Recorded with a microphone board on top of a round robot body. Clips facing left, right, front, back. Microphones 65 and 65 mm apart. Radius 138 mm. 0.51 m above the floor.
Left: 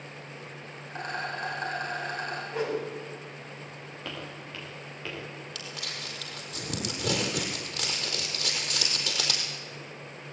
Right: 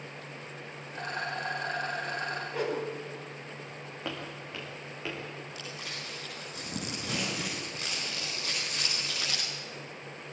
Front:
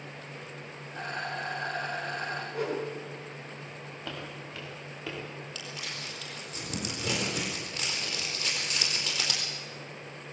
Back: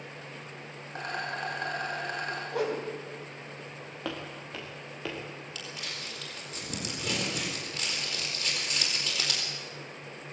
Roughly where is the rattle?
Behind left.